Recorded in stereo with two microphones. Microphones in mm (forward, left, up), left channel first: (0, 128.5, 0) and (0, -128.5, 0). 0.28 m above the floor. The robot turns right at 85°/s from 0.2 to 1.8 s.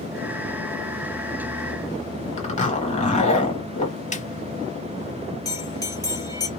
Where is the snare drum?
30° left (ahead or behind), 0.6 m.